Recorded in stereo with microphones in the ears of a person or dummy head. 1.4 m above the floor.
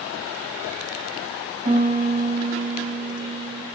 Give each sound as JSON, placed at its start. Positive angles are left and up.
{"t": 1.6, "sound": "a piano", "side_deg": -35, "distance_m": 0.8}